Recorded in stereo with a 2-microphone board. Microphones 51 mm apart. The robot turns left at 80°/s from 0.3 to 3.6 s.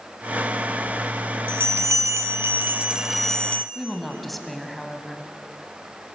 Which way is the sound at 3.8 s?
Centre (ahead or behind).